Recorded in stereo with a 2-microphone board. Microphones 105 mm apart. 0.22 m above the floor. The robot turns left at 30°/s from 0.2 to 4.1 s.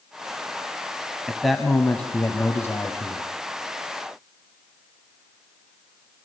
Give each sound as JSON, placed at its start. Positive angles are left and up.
{"t": 1.3, "sound": "a man speaking", "azimuth_deg": -175, "distance_m": 1.6}